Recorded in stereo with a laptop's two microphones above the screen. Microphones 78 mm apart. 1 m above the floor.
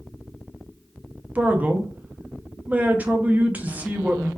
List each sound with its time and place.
1.4 s a man speaking: 20° right (ahead or behind), 0.6 m